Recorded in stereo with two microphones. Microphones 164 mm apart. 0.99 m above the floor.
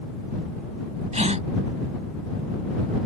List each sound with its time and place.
1.1 s a gasp: 45° right (ahead or behind)